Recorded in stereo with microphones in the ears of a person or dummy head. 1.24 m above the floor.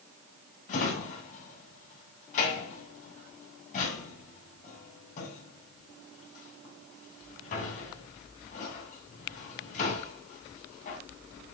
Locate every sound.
0.7 s a drawer: 50° left (ahead or behind), 3 m